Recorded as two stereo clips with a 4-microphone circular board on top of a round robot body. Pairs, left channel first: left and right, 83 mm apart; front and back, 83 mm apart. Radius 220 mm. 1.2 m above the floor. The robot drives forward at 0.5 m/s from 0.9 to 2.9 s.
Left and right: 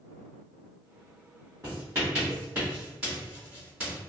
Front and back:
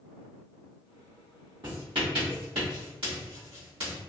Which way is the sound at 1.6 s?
150° right.